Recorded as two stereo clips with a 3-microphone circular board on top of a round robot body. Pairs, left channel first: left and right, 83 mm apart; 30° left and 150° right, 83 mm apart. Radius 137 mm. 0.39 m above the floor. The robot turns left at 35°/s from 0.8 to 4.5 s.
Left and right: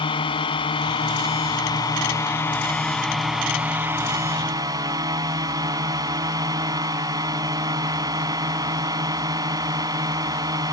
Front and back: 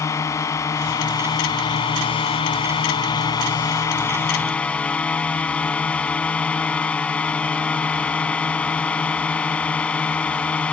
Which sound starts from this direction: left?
A drone, at 0.0 s.